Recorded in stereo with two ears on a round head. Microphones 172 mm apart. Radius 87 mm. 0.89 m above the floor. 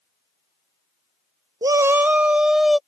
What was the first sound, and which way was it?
A shout, 20° right (ahead or behind).